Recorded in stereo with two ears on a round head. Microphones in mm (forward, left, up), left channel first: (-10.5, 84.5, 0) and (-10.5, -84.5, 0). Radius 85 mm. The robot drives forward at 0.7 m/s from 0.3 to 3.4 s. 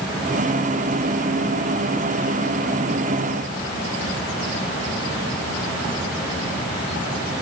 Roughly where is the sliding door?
I don't hear a sliding door.